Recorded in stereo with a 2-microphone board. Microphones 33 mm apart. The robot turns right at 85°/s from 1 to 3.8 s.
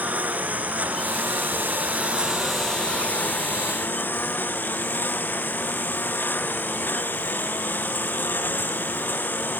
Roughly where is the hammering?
I don't hear hammering.